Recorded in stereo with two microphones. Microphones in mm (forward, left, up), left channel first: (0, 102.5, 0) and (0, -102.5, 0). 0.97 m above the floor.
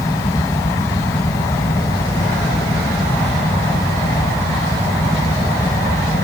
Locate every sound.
Only background noise.